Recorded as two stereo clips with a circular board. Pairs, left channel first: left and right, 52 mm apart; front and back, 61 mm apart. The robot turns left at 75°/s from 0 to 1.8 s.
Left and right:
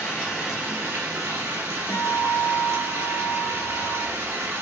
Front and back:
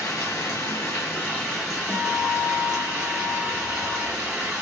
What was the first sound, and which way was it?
Running water, 30° left.